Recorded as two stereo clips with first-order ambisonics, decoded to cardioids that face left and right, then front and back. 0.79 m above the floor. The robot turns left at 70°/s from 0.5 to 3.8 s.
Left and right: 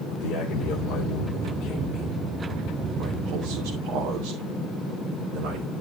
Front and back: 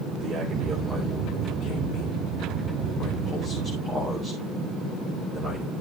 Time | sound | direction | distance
0.1 | a man speaking | 125° left | 3 m